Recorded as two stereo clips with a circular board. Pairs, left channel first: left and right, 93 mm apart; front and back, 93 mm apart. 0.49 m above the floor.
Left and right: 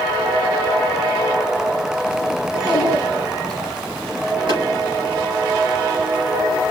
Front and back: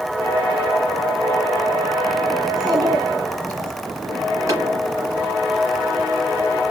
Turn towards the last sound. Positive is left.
turn(degrees=-120)